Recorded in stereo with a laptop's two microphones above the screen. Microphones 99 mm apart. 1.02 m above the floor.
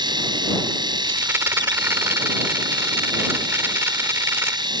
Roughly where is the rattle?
Right.